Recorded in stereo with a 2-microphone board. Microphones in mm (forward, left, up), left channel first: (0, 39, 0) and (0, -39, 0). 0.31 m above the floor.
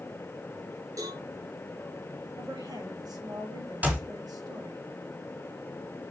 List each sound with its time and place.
1.0 s a cowbell: 55° right (ahead or behind), 5.5 m
2.4 s a woman speaking: 70° right (ahead or behind), 7 m
3.8 s a clap: 20° right (ahead or behind), 3 m